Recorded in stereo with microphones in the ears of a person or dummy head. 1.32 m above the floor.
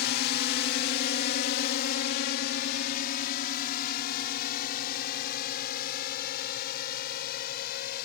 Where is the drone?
50° left (ahead or behind).